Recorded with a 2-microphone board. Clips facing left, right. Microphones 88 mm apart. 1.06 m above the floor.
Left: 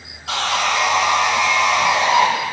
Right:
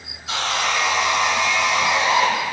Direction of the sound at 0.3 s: 65° left (ahead or behind).